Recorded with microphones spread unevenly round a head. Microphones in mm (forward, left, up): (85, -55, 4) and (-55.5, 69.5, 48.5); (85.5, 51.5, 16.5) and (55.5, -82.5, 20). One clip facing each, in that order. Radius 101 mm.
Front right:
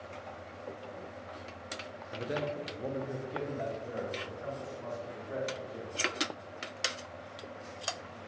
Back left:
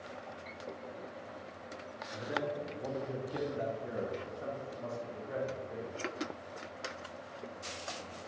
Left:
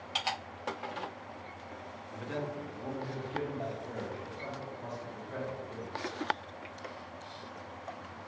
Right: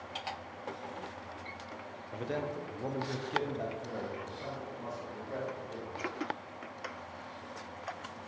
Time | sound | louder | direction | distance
2.1 | a man speaking | front right 2 dB, right 2 dB | 60° right | 0.7 m